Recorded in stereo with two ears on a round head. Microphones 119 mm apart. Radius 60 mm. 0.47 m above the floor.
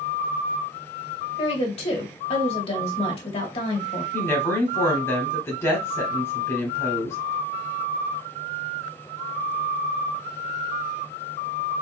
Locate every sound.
1.4 s a woman speaking: 45° left (ahead or behind), 1.6 m
4.1 s a woman speaking: 20° left (ahead or behind), 1.5 m